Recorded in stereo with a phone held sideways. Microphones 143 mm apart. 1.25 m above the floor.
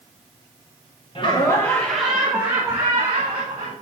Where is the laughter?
35° left (ahead or behind), 1.0 m; by 3.7 s 40° right (ahead or behind), 1.9 m.